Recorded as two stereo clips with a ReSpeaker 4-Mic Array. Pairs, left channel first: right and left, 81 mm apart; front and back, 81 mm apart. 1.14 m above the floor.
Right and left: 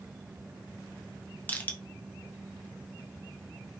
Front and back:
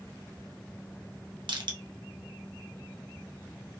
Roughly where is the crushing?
Behind.